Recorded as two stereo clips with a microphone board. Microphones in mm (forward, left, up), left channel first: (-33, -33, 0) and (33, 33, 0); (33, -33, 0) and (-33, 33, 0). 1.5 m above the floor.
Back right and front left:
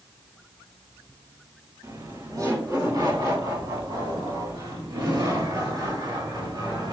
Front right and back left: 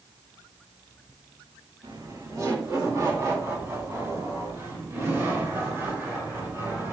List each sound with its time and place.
1.8 s laughter: 95° left, 1.7 m; by 6.9 s 75° left, 4.5 m